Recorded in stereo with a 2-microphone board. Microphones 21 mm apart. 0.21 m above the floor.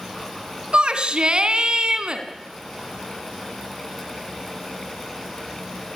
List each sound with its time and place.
0.7 s a shout: 50° right (ahead or behind), 2.5 m